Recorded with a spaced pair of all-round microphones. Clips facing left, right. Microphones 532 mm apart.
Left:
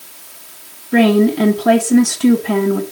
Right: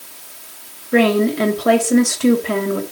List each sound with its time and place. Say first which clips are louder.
0.9 s a woman speaking: left 3 dB; 10° left (ahead or behind), 2.5 m